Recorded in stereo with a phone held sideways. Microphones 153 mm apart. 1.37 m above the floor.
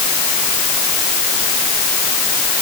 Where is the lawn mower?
No lawn mower in this recording.